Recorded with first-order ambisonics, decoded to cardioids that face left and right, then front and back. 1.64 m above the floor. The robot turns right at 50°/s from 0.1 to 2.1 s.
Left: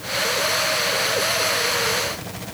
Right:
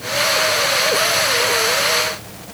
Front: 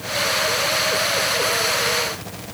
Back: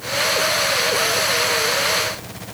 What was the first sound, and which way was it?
Only background noise.